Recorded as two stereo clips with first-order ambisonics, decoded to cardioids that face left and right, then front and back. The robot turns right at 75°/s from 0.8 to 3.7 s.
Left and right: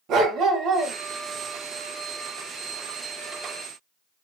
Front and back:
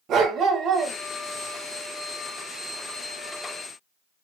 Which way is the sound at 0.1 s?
135° right.